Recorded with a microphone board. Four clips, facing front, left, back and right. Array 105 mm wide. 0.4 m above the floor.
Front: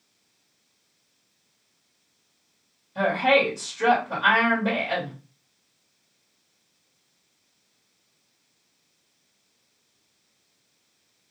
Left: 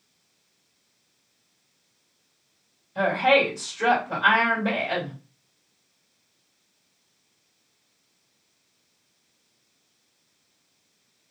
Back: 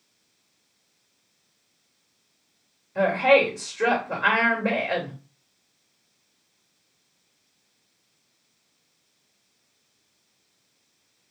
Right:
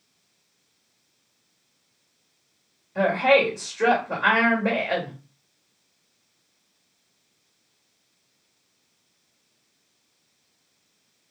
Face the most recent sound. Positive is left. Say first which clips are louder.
# right 1 dB, back 2 dB
turn(degrees=-140)